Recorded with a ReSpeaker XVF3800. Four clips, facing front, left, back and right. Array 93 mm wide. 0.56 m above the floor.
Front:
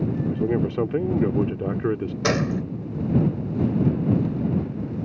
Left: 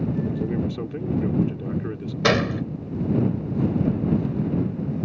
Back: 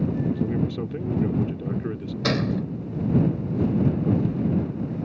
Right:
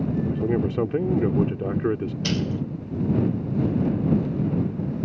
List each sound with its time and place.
0.3 s a man speaking: 40° right
2.2 s a gunshot: 75° left